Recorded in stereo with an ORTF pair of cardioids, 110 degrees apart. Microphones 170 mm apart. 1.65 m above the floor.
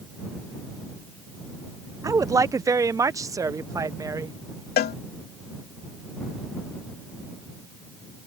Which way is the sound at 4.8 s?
65° left.